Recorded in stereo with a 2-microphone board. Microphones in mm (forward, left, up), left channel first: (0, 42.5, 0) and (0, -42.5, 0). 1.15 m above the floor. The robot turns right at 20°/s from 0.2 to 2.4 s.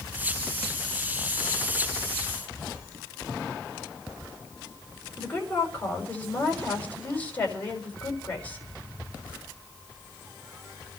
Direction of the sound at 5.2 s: 20° left (ahead or behind).